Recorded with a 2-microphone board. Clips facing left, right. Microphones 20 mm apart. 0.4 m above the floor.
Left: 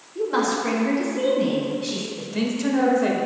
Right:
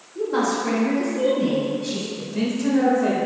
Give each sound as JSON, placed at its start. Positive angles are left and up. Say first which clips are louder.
{"t": 0.1, "sound": "a woman speaking", "louder": "even", "side_deg": 20, "distance_m": 1.5}
{"t": 2.2, "sound": "a man speaking", "louder": "even", "side_deg": 25, "distance_m": 1.4}